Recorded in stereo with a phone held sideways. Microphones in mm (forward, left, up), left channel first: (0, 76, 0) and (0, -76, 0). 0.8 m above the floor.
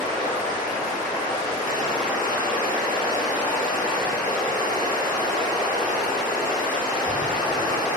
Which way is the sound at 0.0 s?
80° left.